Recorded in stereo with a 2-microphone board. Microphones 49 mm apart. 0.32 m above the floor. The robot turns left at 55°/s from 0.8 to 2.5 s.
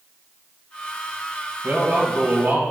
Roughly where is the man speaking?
Ahead right.